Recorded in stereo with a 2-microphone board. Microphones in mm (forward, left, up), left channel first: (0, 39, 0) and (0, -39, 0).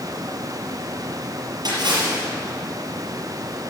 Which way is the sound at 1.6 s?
65° right (ahead or behind).